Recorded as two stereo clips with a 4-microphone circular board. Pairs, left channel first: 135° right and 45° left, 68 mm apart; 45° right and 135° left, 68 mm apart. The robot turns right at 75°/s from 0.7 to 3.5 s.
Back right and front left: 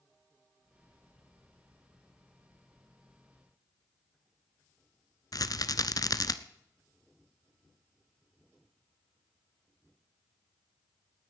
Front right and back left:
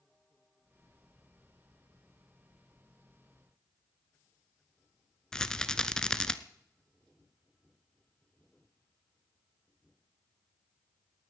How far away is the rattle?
About 0.7 m.